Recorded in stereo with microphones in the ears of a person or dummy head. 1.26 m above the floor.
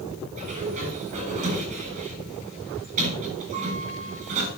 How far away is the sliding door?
About 7.5 m.